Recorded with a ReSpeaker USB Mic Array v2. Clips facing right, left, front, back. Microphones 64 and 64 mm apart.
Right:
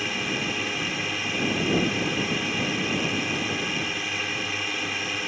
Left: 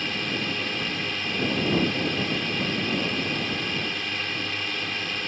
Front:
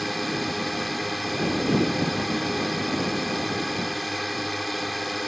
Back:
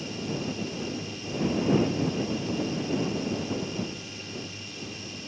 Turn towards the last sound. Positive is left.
turn(degrees=-5)